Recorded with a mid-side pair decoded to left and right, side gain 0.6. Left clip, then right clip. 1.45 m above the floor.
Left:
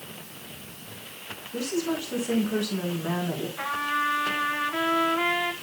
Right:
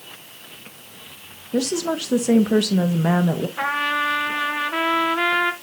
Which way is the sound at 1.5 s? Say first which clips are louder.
Right 6 dB; 55° right.